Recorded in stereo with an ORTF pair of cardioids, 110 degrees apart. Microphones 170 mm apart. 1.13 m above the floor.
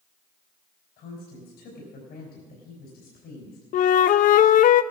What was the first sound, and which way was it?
A woman speaking, 65° left.